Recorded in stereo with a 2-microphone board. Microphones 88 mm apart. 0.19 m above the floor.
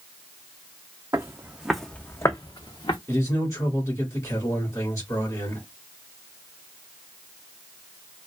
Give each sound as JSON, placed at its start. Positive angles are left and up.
{"t": 1.1, "sound": "footsteps", "side_deg": -35, "distance_m": 0.6}
{"t": 3.1, "sound": "a man speaking", "side_deg": 35, "distance_m": 1.6}